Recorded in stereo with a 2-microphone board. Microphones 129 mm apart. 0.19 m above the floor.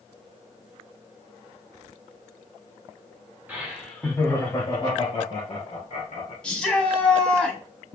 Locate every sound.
3.5 s laughter: 15° right (ahead or behind), 1.6 m; by 6.3 s 60° left (ahead or behind), 3.5 m
6.4 s a shout: 10° left (ahead or behind), 1.2 m